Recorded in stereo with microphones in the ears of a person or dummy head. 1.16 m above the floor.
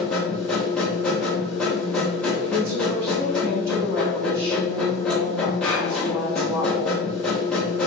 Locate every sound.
0.0 s a machine running: 5° left (ahead or behind), 0.7 m
2.5 s a woman speaking: 15° right (ahead or behind), 1.2 m